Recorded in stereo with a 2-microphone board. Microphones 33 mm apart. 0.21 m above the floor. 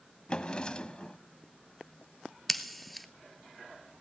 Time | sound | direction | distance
0.3 | a drawer | 25° left (ahead or behind) | 0.7 m
2.5 | scissors | centre (ahead or behind) | 1.2 m